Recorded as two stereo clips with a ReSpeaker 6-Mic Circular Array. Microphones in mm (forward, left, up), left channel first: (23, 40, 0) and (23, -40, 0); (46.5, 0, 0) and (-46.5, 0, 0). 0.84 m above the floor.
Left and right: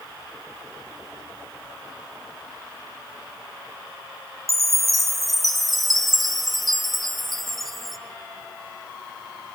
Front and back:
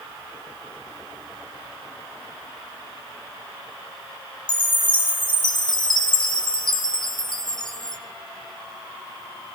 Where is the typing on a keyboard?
No typing on a keyboard in this recording.